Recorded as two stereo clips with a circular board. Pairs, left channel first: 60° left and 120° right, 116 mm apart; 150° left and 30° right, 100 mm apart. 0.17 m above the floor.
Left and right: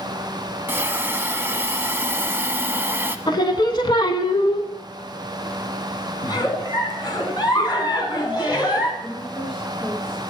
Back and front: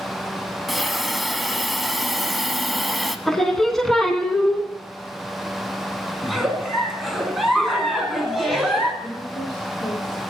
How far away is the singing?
About 0.8 m.